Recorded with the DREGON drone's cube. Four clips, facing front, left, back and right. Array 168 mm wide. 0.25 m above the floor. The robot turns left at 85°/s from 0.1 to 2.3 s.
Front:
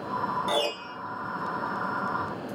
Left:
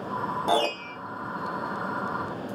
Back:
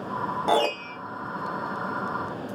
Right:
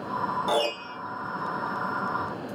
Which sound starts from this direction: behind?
A piano, at 0.5 s.